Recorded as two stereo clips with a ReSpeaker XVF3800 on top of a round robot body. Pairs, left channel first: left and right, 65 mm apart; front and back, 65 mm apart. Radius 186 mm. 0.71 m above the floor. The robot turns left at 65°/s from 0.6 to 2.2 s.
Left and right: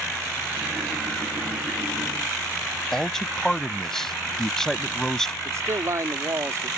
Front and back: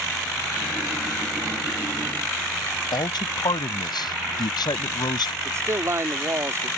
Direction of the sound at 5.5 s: 130° right.